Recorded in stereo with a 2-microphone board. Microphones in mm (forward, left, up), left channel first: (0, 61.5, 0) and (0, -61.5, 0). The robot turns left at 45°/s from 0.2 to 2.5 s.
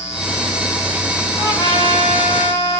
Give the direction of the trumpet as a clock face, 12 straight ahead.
7 o'clock.